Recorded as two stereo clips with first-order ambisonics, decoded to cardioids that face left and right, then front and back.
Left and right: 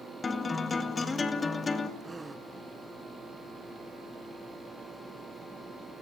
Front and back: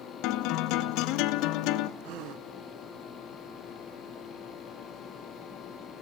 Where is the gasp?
170° right, 0.9 m.